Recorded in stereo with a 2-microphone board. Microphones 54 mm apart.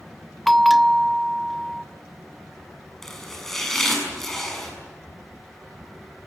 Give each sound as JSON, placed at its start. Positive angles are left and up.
{"t": 0.5, "sound": "a bell", "side_deg": 0, "distance_m": 0.5}
{"t": 3.0, "sound": "chopping", "side_deg": 5, "distance_m": 6.5}